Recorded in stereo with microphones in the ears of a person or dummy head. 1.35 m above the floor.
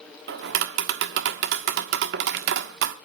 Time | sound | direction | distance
0.3 | tapping | 60° right (ahead or behind) | 1.3 m